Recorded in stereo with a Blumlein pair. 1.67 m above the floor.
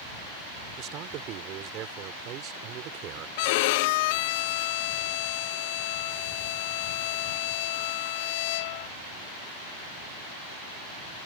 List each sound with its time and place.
0.8 s a man speaking: 35° right
3.4 s a violin: 50° left